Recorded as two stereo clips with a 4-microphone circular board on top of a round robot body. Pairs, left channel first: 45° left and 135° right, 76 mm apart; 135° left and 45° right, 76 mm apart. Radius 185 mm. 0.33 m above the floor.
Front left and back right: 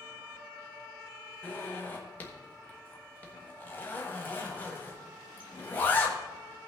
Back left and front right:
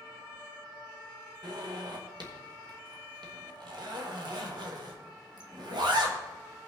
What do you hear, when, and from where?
1.4 s a zipper: 20° right, 1.4 m